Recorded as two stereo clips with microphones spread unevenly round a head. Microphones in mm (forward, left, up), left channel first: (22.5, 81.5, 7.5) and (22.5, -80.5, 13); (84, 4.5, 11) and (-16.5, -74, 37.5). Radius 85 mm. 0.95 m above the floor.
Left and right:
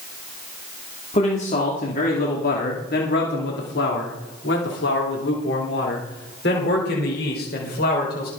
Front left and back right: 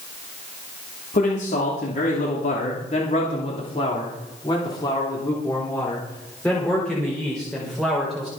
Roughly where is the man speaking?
Ahead left.